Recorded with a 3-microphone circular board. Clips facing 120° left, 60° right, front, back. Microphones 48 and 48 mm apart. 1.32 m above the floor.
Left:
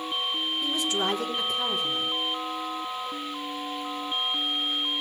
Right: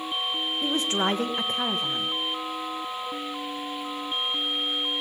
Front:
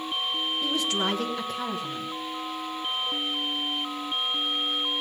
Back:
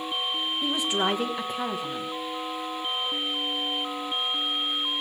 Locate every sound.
0.6 s a woman speaking: 105° right, 1.2 m